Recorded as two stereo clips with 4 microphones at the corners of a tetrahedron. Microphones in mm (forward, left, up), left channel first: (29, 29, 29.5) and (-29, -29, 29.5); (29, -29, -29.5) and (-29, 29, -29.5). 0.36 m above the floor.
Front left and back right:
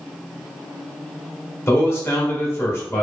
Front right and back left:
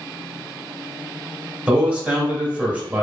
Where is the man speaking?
75° left, 1.0 m.